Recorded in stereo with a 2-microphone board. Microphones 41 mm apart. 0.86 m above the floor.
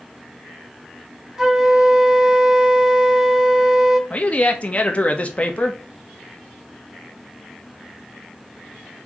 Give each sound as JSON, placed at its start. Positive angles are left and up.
{"t": 1.4, "sound": "a flute", "side_deg": -10, "distance_m": 0.5}
{"t": 4.1, "sound": "a man speaking", "side_deg": 30, "distance_m": 0.6}